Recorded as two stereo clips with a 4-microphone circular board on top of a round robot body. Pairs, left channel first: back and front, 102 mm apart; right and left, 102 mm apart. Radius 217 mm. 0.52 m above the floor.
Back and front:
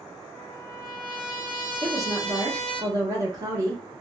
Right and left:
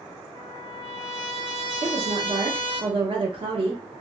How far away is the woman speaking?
About 1.8 m.